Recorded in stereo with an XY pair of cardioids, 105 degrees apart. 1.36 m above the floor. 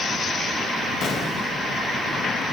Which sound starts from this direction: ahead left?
An explosion, at 1.0 s.